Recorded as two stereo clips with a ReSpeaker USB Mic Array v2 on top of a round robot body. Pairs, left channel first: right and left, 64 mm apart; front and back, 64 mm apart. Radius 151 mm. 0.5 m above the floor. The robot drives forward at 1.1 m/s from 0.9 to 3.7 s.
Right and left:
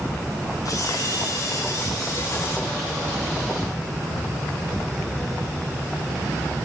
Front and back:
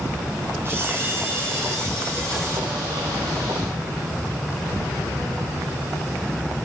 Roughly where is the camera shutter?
Behind right.